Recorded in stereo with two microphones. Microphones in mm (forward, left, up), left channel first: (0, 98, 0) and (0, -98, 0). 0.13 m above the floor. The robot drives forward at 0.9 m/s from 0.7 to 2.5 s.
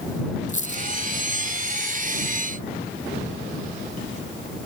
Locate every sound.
0.5 s a dropped coin: 40° left (ahead or behind), 1.0 m; by 0.8 s 35° left (ahead or behind), 1.1 m